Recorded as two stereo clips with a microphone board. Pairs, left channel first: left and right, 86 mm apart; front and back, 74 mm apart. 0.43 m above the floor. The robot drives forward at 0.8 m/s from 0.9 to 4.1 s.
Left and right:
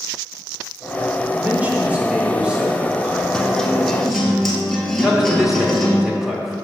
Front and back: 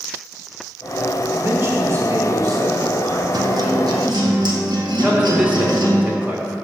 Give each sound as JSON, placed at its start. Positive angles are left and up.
{"t": 1.3, "sound": "a man speaking", "azimuth_deg": -135, "distance_m": 1.0}
{"t": 3.3, "sound": "a guitar", "azimuth_deg": 170, "distance_m": 0.6}
{"t": 5.0, "sound": "a man speaking", "azimuth_deg": -165, "distance_m": 1.0}